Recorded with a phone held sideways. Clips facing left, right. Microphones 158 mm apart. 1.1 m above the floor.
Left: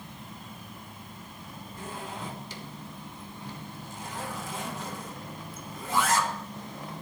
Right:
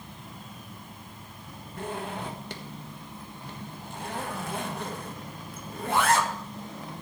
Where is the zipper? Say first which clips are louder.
Right 5 dB; 60° right (ahead or behind), 1.5 m.